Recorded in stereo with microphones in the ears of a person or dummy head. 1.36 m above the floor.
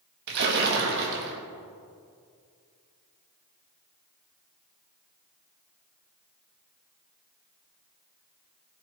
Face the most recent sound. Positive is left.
turn(degrees=-65)  # may be behind; listen again after turning